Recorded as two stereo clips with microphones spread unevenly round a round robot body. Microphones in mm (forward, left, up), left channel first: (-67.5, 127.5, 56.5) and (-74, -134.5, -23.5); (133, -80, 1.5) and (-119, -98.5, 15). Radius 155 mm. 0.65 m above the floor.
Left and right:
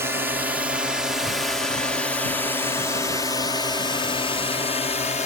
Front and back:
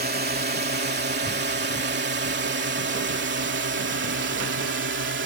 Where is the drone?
145° right; by 5.3 s 160° left.